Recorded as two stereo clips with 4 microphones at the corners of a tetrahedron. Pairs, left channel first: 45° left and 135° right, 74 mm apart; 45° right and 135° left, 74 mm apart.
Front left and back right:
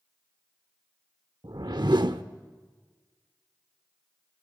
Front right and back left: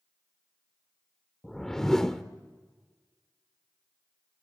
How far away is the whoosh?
About 1.0 m.